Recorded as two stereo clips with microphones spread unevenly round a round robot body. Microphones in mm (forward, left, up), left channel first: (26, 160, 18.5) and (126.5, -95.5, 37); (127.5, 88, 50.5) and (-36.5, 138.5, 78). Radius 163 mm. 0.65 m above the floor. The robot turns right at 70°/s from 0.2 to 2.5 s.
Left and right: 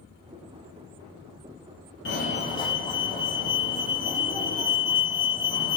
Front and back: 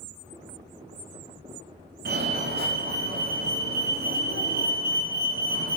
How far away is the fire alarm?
About 2.5 m.